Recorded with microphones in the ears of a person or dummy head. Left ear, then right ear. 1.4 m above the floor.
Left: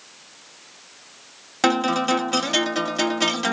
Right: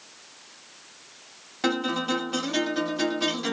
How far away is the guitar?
About 0.7 m.